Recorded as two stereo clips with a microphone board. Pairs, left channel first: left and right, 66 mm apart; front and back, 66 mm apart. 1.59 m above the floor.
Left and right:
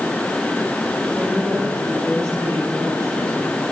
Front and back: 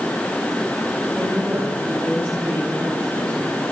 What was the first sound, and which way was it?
A woman speaking, 130° right.